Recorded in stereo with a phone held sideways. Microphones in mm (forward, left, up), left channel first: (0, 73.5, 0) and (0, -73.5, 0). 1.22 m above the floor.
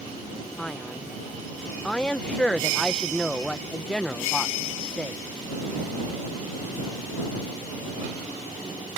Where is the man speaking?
5° left (ahead or behind).